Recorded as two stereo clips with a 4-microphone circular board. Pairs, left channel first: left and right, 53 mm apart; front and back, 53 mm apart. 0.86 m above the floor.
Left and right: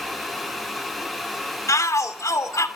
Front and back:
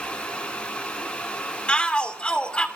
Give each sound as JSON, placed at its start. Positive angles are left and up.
{"t": 1.7, "sound": "a shout", "azimuth_deg": 75, "distance_m": 2.0}